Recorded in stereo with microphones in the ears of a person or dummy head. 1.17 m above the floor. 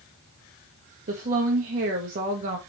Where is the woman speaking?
40° right (ahead or behind), 0.7 m.